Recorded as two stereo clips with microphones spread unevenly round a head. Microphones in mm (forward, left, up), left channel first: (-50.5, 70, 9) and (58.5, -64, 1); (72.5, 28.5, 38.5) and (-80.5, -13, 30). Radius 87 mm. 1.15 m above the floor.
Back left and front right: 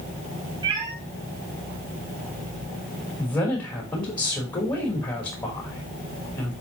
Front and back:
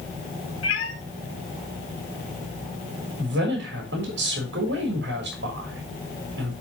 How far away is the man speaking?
About 3 m.